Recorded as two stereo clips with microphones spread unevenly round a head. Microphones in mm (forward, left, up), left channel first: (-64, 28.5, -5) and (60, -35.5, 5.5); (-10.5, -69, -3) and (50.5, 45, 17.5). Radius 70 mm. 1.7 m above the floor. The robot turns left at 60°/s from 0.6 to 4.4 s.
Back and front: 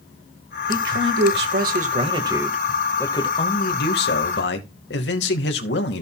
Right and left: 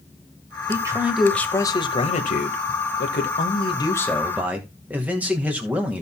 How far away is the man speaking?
About 2 m.